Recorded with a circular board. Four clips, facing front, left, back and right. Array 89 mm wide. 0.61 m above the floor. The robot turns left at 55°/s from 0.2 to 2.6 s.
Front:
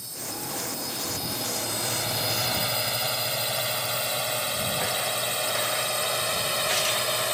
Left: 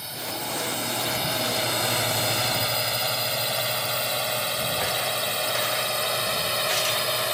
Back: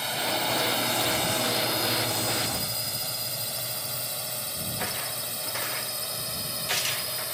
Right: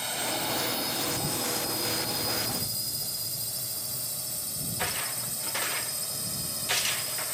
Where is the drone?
165° right; by 7.3 s 50° left.